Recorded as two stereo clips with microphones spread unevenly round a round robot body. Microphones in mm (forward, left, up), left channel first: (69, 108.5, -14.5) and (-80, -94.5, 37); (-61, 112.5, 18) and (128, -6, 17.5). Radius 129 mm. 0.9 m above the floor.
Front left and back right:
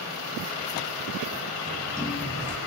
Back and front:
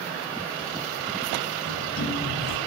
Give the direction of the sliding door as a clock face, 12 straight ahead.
7 o'clock.